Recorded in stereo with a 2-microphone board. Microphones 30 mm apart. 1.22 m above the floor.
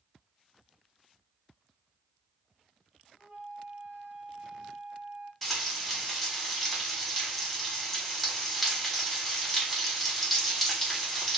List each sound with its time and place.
3.2 s a flute: 35° right (ahead or behind), 1.9 m
5.4 s frying: centre (ahead or behind), 1.4 m